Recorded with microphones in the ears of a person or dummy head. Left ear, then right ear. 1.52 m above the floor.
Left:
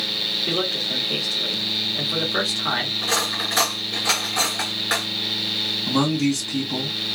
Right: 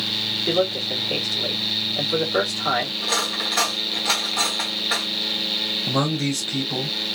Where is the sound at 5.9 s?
15° right (ahead or behind), 2 m.